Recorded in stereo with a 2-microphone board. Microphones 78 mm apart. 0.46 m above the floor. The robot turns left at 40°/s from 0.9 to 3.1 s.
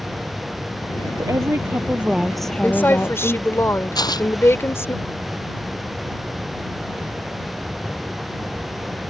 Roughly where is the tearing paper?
Left.